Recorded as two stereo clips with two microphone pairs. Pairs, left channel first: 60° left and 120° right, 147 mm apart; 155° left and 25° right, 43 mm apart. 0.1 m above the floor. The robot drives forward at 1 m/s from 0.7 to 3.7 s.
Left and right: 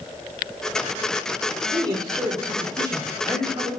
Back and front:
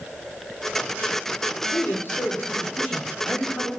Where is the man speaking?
Straight behind, 3 m.